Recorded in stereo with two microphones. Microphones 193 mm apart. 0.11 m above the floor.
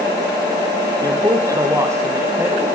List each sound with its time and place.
1.0 s a woman speaking: 20° right (ahead or behind), 4 m; by 2.7 s 10° right (ahead or behind), 5.5 m